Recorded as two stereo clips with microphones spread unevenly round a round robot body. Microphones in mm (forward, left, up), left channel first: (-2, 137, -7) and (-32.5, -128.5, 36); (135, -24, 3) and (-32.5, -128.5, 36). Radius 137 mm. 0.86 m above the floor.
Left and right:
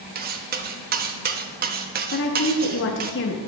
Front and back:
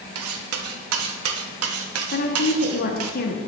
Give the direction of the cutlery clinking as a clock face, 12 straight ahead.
5 o'clock.